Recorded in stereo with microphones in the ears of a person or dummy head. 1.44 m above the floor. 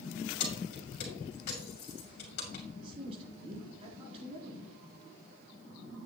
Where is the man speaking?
35° right (ahead or behind), 3.5 m.